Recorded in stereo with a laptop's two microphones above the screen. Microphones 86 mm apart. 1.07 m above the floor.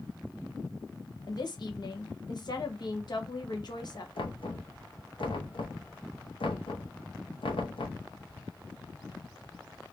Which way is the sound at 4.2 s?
85° left.